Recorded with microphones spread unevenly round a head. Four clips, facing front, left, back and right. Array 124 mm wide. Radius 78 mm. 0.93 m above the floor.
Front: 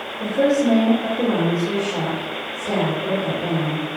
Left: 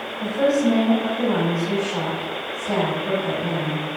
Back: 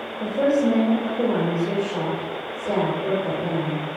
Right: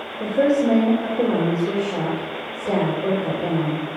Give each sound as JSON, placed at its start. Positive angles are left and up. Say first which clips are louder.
{"t": 0.2, "sound": "a woman speaking", "louder": "right 1 dB, front 2 dB", "azimuth_deg": -100, "distance_m": 3.0}